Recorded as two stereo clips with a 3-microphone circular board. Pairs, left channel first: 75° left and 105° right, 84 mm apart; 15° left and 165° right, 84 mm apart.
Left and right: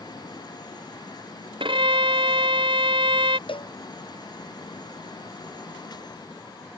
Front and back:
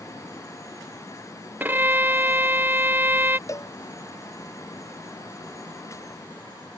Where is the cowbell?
70° left.